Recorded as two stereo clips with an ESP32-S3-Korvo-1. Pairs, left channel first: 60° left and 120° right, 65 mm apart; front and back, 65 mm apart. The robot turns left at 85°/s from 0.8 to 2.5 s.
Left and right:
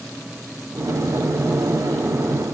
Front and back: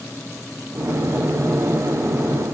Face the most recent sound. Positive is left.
No sound to turn to.